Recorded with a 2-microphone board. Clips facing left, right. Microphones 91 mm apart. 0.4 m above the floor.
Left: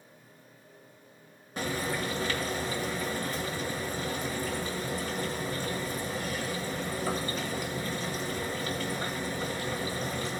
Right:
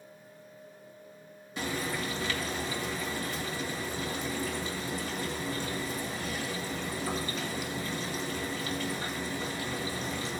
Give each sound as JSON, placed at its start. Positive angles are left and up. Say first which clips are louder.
{"t": 1.6, "sound": "frying", "louder": "left 2 dB", "side_deg": 45, "distance_m": 1.9}